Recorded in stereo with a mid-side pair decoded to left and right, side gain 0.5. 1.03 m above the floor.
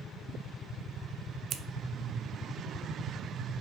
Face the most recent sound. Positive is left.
turn(degrees=-60)